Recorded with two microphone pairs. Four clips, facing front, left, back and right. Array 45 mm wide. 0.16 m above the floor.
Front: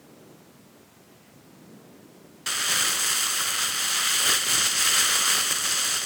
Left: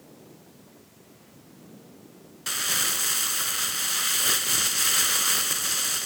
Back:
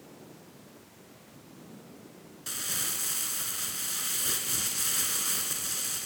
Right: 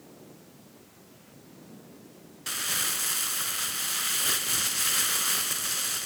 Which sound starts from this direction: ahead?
Crumpling, at 2.5 s.